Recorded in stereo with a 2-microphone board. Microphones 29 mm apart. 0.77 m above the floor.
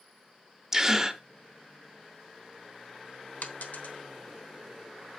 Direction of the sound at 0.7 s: 15° right (ahead or behind).